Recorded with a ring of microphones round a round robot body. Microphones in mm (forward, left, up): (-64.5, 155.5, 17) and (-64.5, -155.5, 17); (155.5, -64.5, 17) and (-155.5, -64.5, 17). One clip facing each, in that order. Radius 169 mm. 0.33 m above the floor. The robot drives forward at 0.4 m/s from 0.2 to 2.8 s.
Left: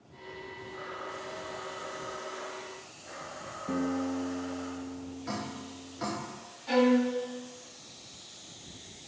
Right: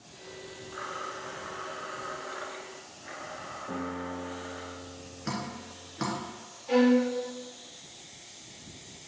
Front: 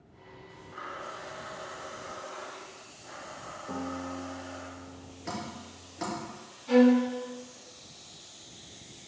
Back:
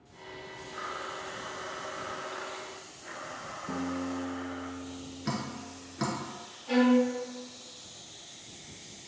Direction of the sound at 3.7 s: 130° left.